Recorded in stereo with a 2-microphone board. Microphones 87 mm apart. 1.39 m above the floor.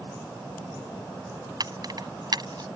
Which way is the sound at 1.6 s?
50° right (ahead or behind).